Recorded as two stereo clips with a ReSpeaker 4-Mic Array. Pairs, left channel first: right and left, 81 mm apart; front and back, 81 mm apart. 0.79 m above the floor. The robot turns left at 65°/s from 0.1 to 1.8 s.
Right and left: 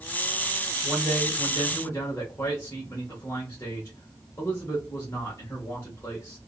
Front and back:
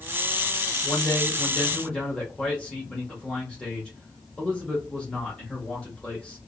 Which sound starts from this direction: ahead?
A man speaking, at 0.8 s.